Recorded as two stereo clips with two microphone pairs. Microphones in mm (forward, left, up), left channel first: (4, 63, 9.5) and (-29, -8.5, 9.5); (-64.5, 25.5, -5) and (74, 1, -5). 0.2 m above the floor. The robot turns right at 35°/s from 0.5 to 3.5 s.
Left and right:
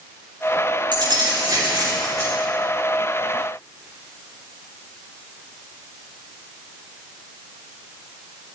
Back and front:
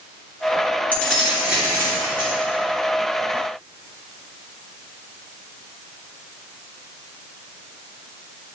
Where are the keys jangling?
115° right, 2 m; by 2.3 s 65° right, 2 m.